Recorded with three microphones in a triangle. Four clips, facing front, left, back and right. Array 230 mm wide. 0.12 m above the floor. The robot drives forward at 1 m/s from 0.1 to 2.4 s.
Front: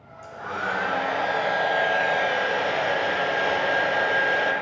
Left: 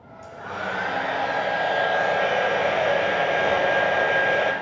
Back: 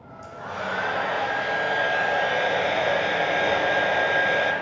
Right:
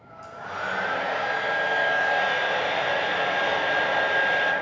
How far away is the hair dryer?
About 2.5 m.